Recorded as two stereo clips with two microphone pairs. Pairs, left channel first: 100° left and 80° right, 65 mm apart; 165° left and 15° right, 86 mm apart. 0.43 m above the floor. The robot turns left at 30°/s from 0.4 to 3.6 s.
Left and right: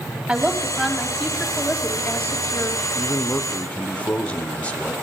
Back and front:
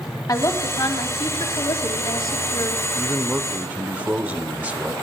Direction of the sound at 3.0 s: 65° left.